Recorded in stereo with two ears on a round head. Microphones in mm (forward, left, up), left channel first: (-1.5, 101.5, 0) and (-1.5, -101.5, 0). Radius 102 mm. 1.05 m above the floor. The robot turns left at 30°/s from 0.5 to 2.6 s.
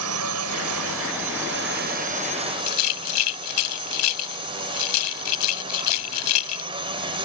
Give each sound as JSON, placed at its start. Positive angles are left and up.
{"t": 0.0, "sound": "a drone", "azimuth_deg": -95}
{"t": 2.7, "sound": "a rattle", "side_deg": 85}